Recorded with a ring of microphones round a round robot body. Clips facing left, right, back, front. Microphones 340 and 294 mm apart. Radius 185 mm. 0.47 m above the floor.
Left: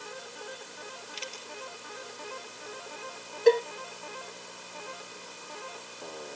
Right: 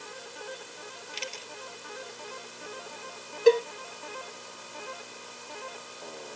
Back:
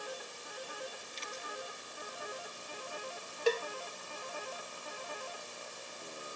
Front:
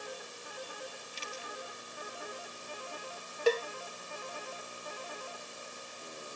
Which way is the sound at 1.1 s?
65° right.